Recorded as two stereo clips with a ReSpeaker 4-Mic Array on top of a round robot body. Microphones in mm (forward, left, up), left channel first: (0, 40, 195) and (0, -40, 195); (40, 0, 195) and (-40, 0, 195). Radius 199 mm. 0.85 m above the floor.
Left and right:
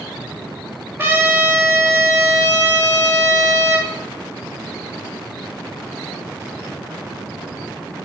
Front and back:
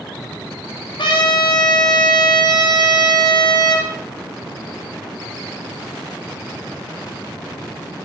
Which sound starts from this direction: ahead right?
A trumpet, at 1.0 s.